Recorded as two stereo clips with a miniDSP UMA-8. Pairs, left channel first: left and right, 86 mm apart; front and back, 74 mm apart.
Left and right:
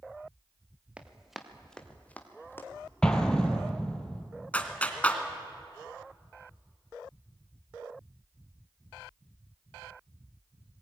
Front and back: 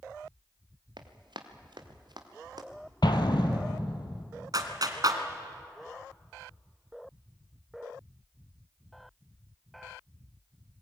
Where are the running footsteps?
170° right, 2.5 m; by 2.7 s 155° left, 3 m.